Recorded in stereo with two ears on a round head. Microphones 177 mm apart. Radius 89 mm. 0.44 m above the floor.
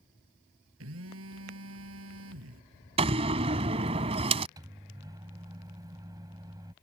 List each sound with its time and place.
0.8 s a phone buzzing: 75° right (ahead or behind)
3.0 s a door slam: 30° right (ahead or behind)
4.6 s a microwave: 20° right (ahead or behind)